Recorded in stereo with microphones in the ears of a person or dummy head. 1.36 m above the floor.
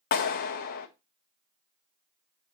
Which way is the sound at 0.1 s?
50° left (ahead or behind).